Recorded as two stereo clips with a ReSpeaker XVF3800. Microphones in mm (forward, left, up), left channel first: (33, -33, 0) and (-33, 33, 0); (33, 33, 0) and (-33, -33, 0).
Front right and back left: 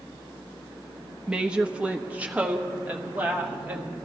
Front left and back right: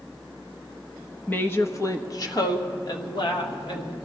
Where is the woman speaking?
70° left, 0.7 m; by 4.0 s 65° left, 1.8 m.